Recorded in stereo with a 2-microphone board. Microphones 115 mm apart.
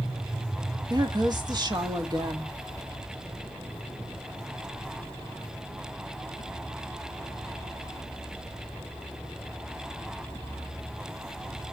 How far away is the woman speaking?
About 1.6 m.